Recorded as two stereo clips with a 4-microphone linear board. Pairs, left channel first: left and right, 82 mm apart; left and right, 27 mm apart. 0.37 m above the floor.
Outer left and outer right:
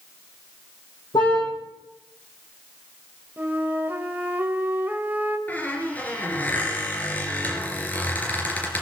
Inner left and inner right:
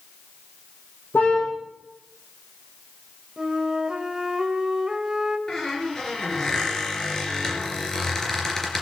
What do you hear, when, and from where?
1.1 s a car horn: 85° left, 8 m
3.4 s a flute: 25° right (ahead or behind), 1.3 m
5.5 s a squeak: 20° left (ahead or behind), 3 m